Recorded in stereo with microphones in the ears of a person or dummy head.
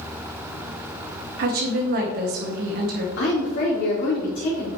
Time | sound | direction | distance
1.4 | a woman speaking | 50° right (ahead or behind) | 1.7 m
3.2 | a woman speaking | 70° left (ahead or behind) | 3 m